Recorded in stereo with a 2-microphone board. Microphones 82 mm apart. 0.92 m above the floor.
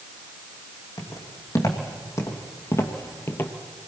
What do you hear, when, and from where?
1.0 s footsteps: 40° left (ahead or behind), 3.5 m; by 3.5 s 25° left (ahead or behind), 1.3 m